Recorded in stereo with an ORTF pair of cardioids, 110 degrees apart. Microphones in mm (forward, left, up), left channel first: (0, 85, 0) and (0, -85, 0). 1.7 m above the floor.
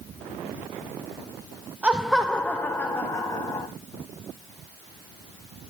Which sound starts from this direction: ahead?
Laughter, at 1.8 s.